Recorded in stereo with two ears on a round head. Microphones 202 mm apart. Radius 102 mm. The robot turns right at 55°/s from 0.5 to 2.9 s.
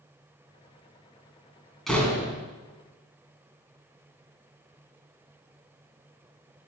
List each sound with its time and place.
1.9 s a door slam: centre (ahead or behind), 2.5 m; by 2.4 s 30° left (ahead or behind), 2.5 m